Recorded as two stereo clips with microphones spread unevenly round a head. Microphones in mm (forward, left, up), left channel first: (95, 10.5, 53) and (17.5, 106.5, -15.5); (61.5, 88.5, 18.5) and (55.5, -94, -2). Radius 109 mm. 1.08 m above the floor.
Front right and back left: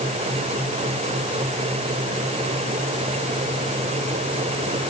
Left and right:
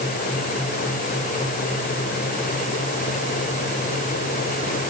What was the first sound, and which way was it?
Only background noise.